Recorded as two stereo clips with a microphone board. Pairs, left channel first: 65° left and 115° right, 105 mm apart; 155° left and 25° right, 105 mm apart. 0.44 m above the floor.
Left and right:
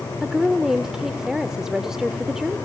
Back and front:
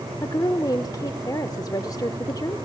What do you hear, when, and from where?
0.2 s a woman speaking: 165° left, 1.1 m